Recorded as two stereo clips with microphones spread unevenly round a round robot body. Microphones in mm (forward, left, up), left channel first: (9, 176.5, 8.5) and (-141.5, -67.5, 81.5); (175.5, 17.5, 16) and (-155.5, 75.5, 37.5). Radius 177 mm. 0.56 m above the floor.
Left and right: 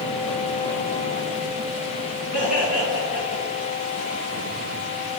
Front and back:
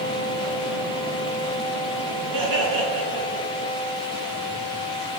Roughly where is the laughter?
Behind.